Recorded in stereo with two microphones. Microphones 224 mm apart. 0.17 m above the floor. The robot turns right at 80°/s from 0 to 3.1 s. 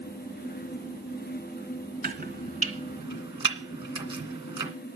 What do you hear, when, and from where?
2.0 s chopping: 35° right (ahead or behind), 2 m; by 4.7 s 25° right (ahead or behind), 2 m